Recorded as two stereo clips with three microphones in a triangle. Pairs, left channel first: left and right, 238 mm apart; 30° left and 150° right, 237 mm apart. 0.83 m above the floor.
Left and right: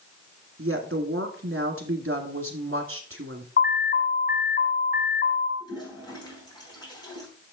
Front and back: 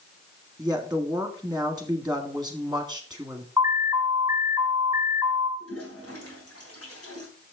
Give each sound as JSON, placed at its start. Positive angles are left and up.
{"t": 0.6, "sound": "a woman speaking", "azimuth_deg": -65, "distance_m": 1.8}
{"t": 3.6, "sound": "an alarm", "azimuth_deg": 135, "distance_m": 2.0}
{"t": 5.6, "sound": "a toilet flushing", "azimuth_deg": 15, "distance_m": 4.0}